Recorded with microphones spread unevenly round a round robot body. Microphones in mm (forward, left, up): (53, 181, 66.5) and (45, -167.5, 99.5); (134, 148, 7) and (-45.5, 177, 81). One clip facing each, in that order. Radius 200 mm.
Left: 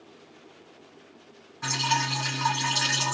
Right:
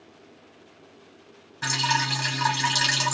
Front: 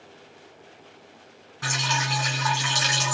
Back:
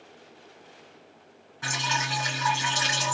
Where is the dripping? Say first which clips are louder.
Right 1 dB, front 2 dB; 55° right, 2.5 m.